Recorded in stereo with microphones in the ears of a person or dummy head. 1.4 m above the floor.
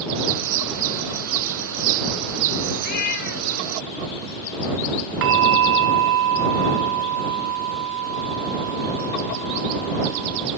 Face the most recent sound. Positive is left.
turn(degrees=-55)  # may be behind; listen again after turning